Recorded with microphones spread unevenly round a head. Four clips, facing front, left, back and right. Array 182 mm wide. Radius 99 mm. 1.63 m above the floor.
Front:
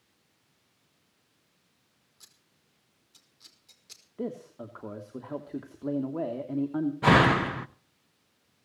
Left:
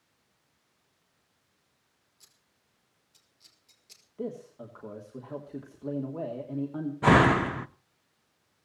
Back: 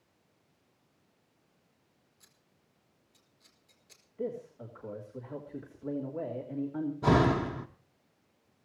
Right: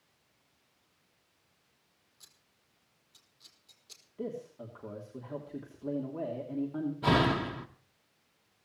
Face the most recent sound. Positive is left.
turn(degrees=95)